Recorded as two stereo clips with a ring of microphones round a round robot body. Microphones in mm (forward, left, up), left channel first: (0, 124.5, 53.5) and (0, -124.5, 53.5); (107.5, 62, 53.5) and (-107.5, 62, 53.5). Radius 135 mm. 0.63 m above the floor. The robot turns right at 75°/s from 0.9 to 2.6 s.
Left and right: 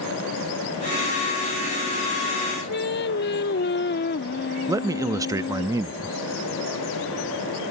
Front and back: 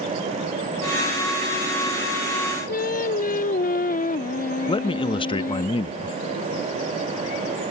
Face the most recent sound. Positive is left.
turn(degrees=-30)